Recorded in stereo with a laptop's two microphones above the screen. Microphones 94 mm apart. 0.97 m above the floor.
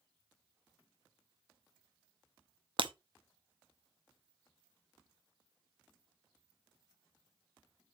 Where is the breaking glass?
65° right (ahead or behind), 0.6 m.